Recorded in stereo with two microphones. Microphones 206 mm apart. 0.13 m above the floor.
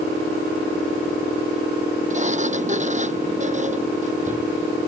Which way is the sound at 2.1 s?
35° right (ahead or behind).